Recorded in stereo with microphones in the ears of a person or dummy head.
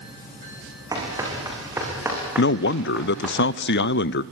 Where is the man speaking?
60° left (ahead or behind), 0.6 m.